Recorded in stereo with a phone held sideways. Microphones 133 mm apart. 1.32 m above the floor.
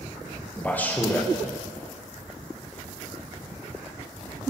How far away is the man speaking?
About 0.7 m.